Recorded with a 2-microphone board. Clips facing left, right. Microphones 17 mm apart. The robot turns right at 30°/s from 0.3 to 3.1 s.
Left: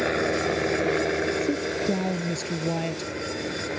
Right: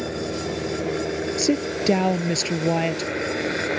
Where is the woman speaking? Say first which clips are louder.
Right 3 dB; 80° right; by 3.1 s 30° right.